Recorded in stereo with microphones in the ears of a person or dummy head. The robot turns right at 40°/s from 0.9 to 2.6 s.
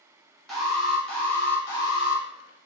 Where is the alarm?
5° right, 0.8 m; by 2.2 s 50° left, 0.8 m.